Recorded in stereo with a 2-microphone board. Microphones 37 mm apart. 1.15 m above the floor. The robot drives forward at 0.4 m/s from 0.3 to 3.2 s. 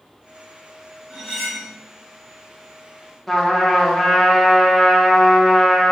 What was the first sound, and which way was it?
Cutlery clinking, centre (ahead or behind).